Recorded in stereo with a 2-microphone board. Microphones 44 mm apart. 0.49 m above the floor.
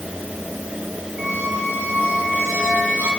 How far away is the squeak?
About 2 m.